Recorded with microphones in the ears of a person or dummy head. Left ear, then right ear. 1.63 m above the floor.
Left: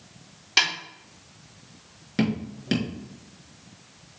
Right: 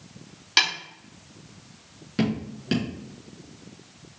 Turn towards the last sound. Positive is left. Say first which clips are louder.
# even
turn(degrees=5)  # may be behind; listen again after turning